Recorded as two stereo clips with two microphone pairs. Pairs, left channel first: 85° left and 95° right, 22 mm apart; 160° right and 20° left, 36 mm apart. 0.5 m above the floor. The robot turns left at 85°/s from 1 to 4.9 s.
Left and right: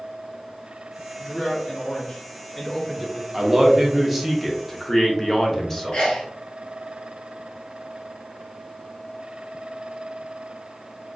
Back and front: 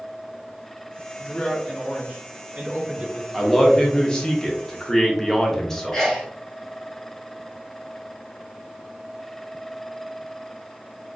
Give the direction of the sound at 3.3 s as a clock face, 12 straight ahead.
3 o'clock.